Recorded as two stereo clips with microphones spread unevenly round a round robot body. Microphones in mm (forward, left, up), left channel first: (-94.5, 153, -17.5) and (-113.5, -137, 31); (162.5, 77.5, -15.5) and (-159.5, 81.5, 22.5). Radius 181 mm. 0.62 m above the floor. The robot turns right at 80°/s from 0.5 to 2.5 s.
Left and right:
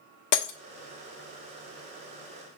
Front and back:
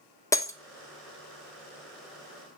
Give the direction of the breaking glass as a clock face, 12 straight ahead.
9 o'clock.